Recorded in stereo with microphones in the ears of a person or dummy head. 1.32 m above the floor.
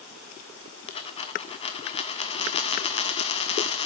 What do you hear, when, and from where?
0.9 s a dropped coin: 30° left (ahead or behind), 1.2 m